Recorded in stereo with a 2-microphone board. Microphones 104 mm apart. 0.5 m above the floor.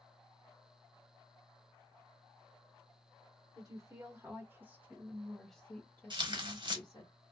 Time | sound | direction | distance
3.5 | a woman speaking | 35° right (ahead or behind) | 1.7 m
6.1 | tearing paper | 50° right (ahead or behind) | 0.8 m